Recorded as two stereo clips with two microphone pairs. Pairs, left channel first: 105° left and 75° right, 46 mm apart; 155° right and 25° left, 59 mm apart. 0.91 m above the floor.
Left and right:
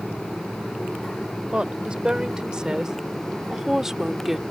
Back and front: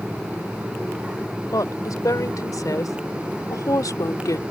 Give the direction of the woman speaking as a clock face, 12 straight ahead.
5 o'clock.